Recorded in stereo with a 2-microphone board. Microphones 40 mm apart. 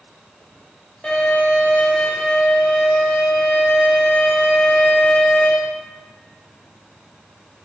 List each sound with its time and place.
1.0 s a violin: 30° left (ahead or behind), 0.9 m